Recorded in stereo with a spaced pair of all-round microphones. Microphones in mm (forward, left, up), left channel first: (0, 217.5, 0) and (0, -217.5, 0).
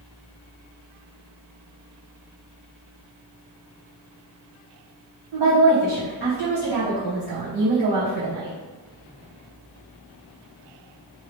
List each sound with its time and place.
5.3 s a woman speaking: 65° right (ahead or behind), 0.9 m